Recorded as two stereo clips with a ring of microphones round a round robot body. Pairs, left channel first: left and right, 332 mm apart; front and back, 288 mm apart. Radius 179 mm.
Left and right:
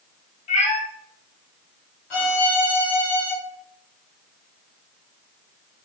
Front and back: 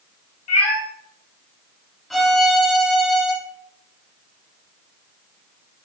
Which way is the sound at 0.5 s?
40° left.